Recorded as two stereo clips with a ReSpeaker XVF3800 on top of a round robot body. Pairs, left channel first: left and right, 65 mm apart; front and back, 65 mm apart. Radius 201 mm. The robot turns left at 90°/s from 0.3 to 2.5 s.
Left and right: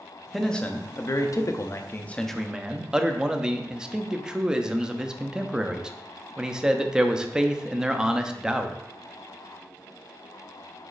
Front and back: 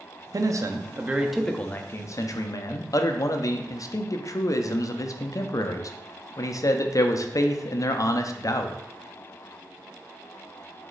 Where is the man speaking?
Straight behind, 0.7 m; by 8.8 s 15° right, 0.7 m.